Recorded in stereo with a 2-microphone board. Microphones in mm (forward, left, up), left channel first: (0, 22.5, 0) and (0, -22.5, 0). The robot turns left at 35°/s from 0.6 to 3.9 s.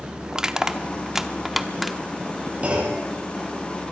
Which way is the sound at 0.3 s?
15° right (ahead or behind).